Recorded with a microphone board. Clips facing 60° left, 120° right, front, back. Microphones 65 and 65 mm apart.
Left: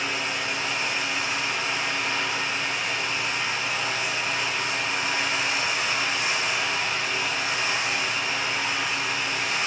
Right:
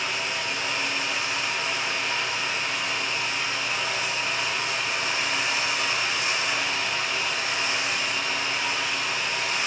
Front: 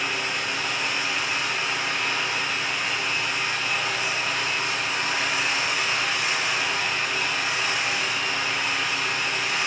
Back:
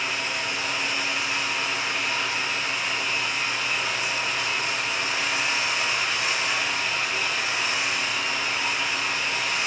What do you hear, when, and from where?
0.0 s running water: 20° left, 1.6 m